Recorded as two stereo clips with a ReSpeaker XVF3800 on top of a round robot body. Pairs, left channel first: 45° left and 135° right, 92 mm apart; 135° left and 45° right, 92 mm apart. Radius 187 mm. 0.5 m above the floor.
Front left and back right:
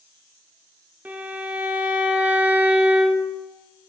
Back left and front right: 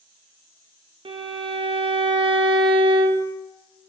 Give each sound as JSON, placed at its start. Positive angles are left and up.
{"t": 1.1, "sound": "a violin", "azimuth_deg": -60, "distance_m": 0.8}